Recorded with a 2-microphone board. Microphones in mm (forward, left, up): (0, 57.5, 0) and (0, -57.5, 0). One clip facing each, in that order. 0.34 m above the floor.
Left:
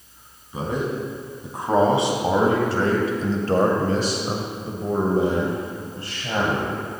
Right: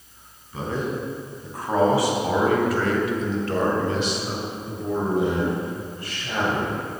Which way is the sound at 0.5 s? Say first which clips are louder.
Left 2 dB; 20° left (ahead or behind).